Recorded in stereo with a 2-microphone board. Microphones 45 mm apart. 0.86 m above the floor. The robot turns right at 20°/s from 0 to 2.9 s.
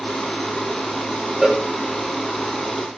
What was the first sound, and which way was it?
A cowbell, 10° right (ahead or behind).